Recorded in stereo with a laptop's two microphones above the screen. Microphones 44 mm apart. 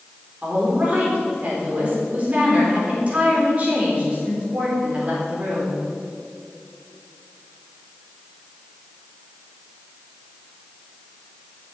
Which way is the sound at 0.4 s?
30° right (ahead or behind).